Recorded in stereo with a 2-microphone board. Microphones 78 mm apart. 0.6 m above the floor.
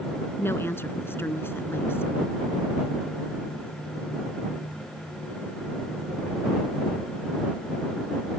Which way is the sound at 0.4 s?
30° left (ahead or behind).